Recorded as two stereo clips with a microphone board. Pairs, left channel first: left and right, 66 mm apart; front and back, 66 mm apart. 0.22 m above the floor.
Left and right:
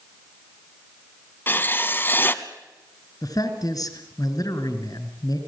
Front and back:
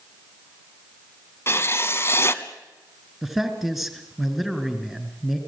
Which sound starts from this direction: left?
A man speaking, at 3.2 s.